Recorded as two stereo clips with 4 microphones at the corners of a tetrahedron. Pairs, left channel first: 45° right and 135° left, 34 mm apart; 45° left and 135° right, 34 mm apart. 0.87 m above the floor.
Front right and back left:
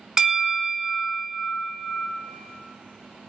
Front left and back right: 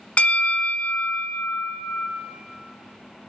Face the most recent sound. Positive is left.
turn(degrees=75)